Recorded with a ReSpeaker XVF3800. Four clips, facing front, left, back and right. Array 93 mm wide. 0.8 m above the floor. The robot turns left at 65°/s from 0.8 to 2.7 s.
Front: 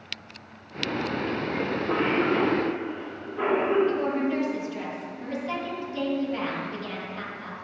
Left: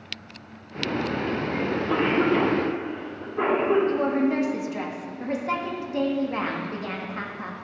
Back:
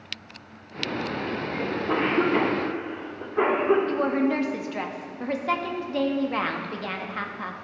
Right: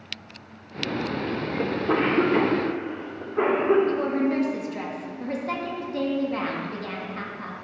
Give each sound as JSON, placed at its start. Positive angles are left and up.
{"t": 1.6, "sound": "a cough", "azimuth_deg": -75, "distance_m": 2.0}
{"t": 3.9, "sound": "a woman speaking", "azimuth_deg": 165, "distance_m": 0.8}